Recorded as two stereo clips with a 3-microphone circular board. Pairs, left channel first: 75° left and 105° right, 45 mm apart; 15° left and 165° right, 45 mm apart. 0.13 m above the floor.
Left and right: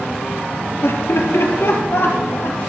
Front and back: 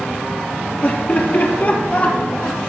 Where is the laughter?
65° left, 2.5 m; by 2.7 s 55° left, 3.5 m.